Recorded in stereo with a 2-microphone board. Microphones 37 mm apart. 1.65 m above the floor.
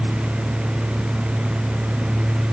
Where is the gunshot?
I don't hear a gunshot.